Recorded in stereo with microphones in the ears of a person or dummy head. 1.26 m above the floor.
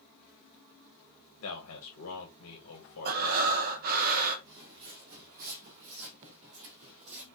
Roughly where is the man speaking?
Left.